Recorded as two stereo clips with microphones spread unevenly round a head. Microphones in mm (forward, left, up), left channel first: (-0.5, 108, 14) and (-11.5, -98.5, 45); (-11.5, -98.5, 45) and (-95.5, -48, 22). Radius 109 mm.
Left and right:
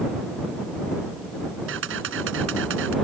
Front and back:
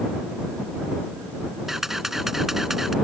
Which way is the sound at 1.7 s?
120° right.